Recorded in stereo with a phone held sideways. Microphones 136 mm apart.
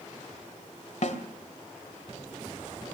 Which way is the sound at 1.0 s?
60° left (ahead or behind).